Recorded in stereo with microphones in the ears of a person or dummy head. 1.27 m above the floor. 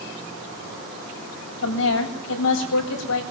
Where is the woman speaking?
70° left (ahead or behind), 9 m.